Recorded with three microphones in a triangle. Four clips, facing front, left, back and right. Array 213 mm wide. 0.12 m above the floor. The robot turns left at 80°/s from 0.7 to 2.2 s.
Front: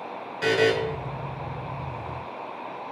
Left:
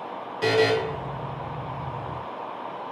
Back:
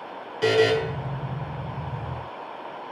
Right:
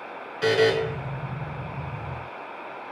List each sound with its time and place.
0.4 s a buzzer: 145° left, 0.5 m; by 0.7 s 140° left, 0.5 m